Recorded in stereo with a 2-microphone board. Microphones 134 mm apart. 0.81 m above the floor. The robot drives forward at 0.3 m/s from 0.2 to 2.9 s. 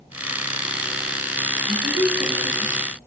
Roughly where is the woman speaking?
Right.